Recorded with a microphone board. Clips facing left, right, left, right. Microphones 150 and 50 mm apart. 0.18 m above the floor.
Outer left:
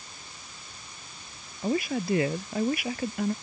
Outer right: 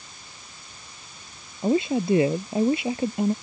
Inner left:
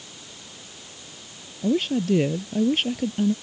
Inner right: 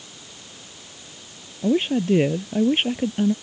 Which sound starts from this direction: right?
A woman speaking, at 1.6 s.